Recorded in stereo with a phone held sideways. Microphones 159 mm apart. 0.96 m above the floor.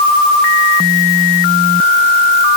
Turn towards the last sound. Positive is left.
No sound to turn to.